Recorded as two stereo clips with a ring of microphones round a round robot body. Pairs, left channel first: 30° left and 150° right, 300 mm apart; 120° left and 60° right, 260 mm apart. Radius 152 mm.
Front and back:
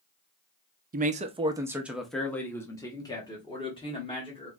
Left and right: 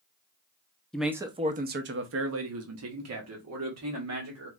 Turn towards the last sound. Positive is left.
turn(degrees=-40)